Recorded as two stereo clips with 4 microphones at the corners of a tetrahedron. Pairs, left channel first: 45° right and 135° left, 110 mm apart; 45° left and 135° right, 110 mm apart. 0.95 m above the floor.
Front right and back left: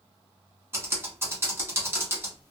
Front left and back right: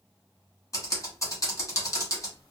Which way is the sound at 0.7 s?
85° left.